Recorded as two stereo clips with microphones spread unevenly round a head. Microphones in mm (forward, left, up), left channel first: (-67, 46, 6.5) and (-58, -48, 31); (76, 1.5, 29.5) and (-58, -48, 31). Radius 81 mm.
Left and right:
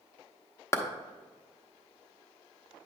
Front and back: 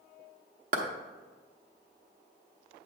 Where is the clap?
160° left, 1.0 m.